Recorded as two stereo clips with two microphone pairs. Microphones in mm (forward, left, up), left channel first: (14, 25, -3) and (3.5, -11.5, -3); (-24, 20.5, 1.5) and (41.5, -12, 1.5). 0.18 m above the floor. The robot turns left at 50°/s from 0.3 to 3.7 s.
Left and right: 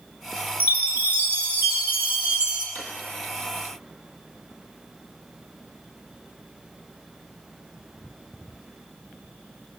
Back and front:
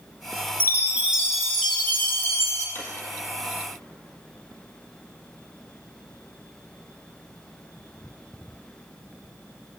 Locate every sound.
0.6 s a chime: 75° right, 1.5 m; by 2.6 s straight behind, 1.5 m
2.8 s a drawer: 95° left, 1.3 m; by 2.9 s 90° left, 1.3 m